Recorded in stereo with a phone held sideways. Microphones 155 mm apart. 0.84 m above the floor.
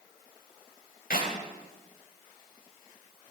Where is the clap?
80° left, 3.5 m.